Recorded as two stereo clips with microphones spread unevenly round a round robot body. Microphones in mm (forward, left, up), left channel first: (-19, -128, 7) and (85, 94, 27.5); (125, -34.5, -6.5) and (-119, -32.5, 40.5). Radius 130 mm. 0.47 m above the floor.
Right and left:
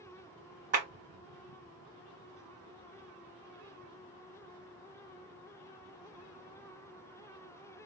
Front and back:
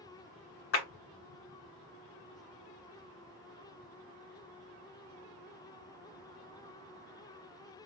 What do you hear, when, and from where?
0.7 s a clap: 10° left, 1.8 m